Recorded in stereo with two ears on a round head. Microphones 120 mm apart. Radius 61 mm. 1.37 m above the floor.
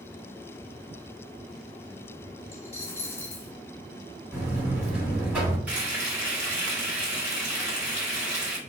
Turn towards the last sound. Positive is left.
turn(degrees=-10)  # may be behind; listen again after turning